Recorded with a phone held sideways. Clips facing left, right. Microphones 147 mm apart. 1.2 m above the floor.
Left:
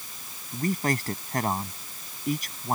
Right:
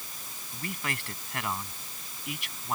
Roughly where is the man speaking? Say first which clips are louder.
Left 10 dB; left.